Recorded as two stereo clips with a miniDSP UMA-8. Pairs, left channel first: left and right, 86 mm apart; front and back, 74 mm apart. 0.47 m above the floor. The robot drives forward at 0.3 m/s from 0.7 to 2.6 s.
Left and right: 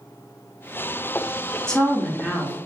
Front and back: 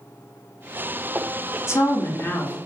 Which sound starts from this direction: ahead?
A woman speaking, at 1.7 s.